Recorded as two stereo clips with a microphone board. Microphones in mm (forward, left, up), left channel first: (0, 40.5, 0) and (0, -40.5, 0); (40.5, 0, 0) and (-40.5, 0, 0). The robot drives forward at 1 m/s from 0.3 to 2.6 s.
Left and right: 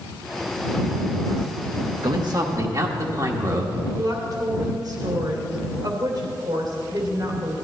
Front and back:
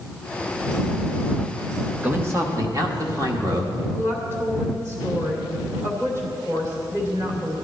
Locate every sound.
2.0 s a man speaking: 110° right, 1.0 m; by 3.8 s 135° right, 1.3 m
3.9 s a woman speaking: 125° right, 2.5 m